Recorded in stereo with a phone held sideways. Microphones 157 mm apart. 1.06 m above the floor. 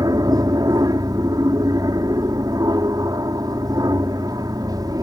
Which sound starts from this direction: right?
An aircraft, at 0.0 s.